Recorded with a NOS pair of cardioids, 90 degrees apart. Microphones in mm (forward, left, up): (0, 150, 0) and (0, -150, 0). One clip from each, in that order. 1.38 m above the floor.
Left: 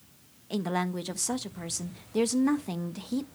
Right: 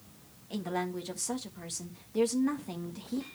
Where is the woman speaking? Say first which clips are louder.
Left 4 dB; 35° left, 1.6 m.